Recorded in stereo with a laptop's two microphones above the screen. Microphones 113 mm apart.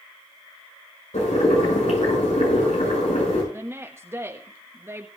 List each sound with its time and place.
1.1 s boiling: 85° left, 6.5 m
3.5 s a woman speaking: 20° right (ahead or behind), 1.3 m